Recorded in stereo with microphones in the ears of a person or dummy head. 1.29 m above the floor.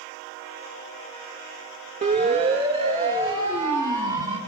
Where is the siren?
40° right (ahead or behind), 2.5 m; by 4.4 s 20° right (ahead or behind), 4.5 m.